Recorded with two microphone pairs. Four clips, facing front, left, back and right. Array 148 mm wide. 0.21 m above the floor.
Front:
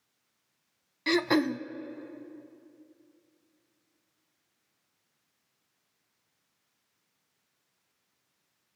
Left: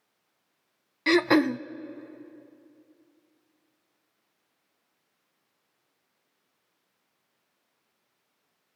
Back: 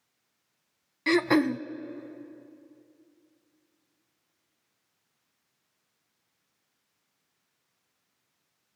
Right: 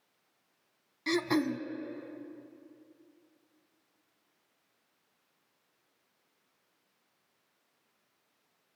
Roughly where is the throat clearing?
Left.